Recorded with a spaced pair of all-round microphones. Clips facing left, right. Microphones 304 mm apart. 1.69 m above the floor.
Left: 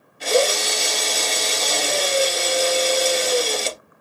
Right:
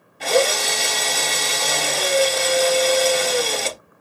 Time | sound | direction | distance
0.2 | a drill | 65° right (ahead or behind) | 1.1 m